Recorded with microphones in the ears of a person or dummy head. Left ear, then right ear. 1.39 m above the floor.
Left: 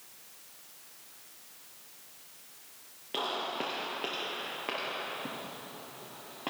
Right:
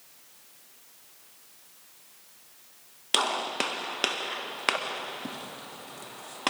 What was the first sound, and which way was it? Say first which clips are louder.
A gunshot: right 7 dB; 60° right (ahead or behind).